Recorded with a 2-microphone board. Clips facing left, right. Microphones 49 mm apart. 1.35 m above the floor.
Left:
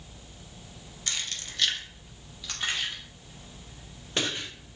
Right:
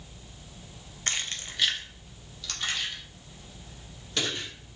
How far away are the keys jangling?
About 0.5 m.